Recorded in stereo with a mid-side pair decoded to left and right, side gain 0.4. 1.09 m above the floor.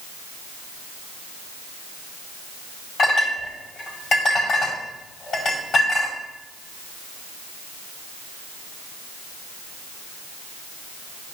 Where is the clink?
60° left, 5 m.